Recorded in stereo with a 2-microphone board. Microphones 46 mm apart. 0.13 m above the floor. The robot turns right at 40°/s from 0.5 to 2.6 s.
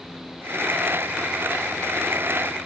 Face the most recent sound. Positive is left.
No sound to turn to.